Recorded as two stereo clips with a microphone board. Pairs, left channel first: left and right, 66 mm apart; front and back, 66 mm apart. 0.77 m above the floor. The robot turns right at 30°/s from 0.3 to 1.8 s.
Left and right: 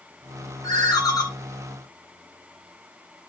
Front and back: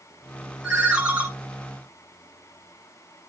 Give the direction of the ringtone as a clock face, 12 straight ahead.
9 o'clock.